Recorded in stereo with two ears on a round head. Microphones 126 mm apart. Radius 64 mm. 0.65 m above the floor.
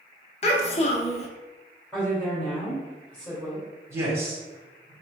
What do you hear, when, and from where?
0.4 s a child speaking: 45° left (ahead or behind), 0.9 m
1.9 s a woman speaking: 15° left (ahead or behind), 2.0 m
3.9 s a man speaking: 20° right (ahead or behind), 1.8 m